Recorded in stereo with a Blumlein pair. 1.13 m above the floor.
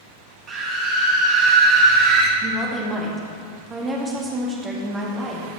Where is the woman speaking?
15° right, 1.9 m.